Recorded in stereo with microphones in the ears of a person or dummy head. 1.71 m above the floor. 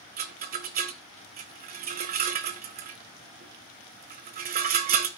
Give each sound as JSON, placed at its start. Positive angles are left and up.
{"t": 0.2, "sound": "a rattle", "side_deg": -45, "distance_m": 0.6}